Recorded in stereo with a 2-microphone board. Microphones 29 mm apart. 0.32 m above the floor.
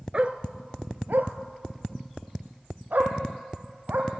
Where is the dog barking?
40° right (ahead or behind), 1.1 m; by 4.1 s 70° right (ahead or behind), 4 m.